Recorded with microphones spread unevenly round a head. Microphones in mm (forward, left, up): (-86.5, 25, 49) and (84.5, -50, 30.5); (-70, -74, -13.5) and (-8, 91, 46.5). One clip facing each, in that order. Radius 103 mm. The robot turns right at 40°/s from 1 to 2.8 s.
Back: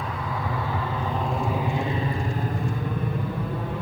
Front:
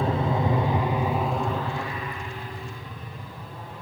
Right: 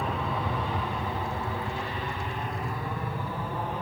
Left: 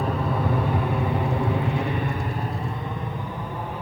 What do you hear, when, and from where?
0.0 s an aircraft: 10° left; by 3.8 s 160° left